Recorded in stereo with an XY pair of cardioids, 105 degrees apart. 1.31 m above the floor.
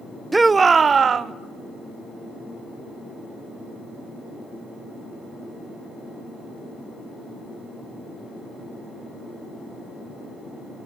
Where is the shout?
15° right, 0.5 m; by 1.3 s 45° right, 1.1 m.